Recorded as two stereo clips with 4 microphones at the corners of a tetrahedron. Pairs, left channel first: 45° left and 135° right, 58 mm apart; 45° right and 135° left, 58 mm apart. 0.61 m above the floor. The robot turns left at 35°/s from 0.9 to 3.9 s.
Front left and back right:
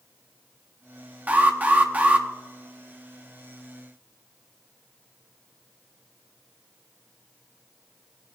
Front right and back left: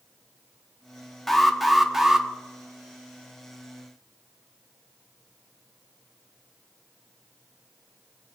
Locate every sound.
1.3 s an alarm: 120° right, 1.0 m; by 2.3 s 155° right, 1.0 m